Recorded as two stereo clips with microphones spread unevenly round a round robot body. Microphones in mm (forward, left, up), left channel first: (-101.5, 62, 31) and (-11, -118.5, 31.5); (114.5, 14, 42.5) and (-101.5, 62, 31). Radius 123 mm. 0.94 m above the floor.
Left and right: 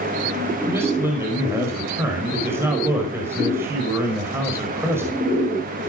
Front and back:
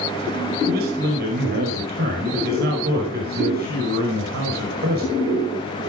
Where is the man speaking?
140° right, 5 m.